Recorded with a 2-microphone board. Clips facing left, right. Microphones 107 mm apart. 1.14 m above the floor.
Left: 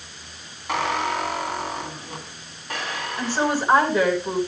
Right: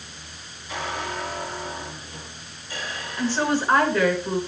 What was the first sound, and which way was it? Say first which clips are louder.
A squeak: left 6 dB; 75° left (ahead or behind).